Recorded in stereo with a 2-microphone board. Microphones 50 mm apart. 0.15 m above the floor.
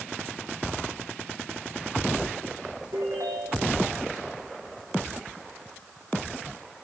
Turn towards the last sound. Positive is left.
turn(degrees=-80)